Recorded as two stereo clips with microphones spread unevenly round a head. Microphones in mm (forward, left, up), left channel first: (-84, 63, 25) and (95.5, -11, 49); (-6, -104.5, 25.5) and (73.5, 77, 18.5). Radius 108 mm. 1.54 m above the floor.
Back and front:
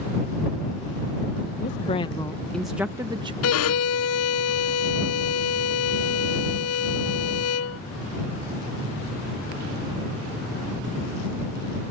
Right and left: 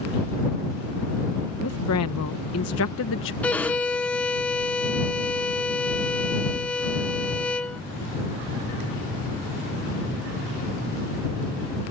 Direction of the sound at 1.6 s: 145° right.